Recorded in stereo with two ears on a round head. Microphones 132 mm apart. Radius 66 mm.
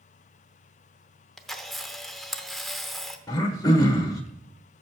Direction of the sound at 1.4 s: Centre (ahead or behind).